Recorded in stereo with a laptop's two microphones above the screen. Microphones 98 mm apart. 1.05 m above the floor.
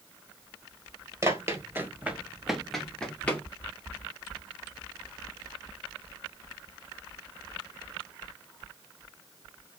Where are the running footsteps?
30° right (ahead or behind), 1.3 m; by 3.5 s 15° left (ahead or behind), 1.3 m.